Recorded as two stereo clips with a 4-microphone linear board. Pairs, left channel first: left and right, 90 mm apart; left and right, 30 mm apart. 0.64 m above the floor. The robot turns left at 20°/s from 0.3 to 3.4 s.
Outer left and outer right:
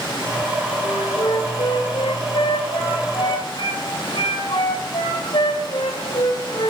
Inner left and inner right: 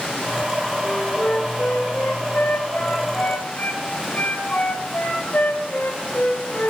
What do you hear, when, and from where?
0.8 s a flute: 130° left, 2.0 m; by 6.7 s 80° left, 2.0 m